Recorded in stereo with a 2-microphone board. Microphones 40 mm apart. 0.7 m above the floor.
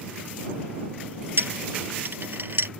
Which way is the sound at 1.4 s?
60° right (ahead or behind).